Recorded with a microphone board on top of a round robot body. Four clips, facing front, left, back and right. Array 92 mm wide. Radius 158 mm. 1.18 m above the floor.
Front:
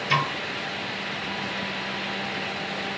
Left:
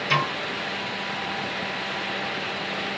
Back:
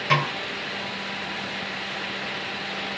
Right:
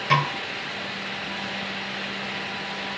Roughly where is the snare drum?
Behind right.